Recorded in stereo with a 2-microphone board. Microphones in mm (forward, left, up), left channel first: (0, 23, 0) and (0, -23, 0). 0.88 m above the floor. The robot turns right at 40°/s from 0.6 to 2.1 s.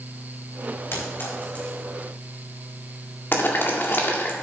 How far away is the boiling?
About 1.9 m.